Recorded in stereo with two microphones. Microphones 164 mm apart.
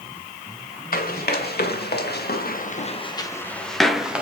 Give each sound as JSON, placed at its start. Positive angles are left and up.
{"t": 0.9, "sound": "running footsteps", "side_deg": 65, "distance_m": 3.0}